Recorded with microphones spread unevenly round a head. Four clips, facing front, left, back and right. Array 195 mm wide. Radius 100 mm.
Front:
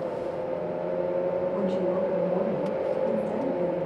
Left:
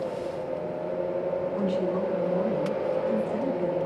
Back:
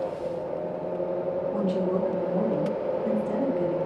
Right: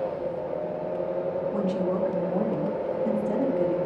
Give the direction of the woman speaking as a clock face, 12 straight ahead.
5 o'clock.